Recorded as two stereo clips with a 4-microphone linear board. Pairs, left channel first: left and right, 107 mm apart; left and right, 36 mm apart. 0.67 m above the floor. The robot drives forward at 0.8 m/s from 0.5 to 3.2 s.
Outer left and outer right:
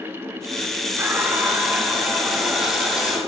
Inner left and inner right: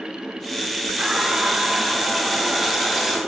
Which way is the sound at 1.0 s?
25° right (ahead or behind).